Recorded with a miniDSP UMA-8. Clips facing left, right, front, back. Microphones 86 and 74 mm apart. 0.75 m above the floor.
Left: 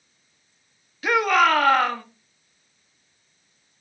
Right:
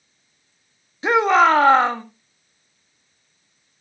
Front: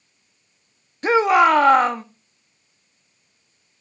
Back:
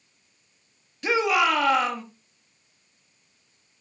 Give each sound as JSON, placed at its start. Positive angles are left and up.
{"t": 1.0, "sound": "a shout", "azimuth_deg": -35, "distance_m": 1.6}